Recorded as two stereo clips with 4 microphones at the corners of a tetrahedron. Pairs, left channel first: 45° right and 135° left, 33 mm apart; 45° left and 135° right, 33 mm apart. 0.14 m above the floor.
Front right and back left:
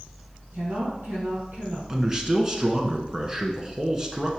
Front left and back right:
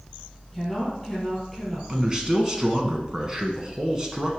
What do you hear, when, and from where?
0.5 s a woman speaking: 130° left, 3 m
1.9 s a man speaking: 175° right, 1.1 m